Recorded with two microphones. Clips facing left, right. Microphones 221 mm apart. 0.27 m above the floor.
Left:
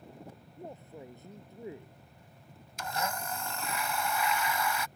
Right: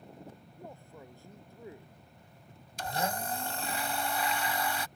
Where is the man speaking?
20° left (ahead or behind).